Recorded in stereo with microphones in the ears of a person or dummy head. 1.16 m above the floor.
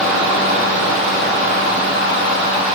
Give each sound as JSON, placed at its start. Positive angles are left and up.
{"t": 0.0, "sound": "a fan", "side_deg": -40, "distance_m": 3.5}